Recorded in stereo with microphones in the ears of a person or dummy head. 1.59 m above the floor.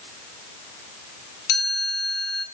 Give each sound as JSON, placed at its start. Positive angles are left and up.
{"t": 1.5, "sound": "a chime", "side_deg": 65, "distance_m": 9.5}